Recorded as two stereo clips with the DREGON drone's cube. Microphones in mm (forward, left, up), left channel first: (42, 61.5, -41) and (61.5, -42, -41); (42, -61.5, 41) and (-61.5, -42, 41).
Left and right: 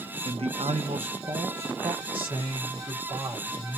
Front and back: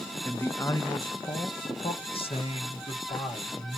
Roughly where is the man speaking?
Right.